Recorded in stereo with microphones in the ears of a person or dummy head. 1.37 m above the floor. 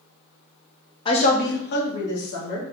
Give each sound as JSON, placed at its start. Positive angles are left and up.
{"t": 1.1, "sound": "a woman speaking", "side_deg": 25, "distance_m": 0.5}